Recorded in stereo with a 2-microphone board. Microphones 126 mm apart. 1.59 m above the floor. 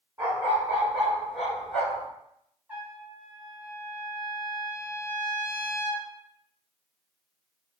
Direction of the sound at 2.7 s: 15° right (ahead or behind).